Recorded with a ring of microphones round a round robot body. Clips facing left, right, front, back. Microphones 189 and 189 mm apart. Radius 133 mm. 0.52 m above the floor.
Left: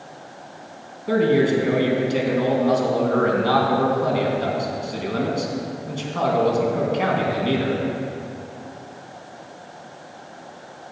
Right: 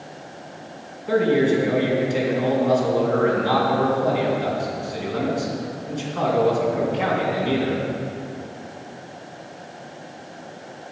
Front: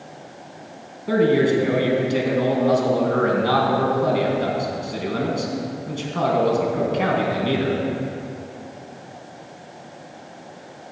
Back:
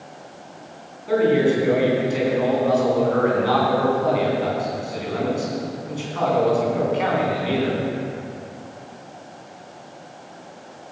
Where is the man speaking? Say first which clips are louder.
Even, even; 45° left, 4 m.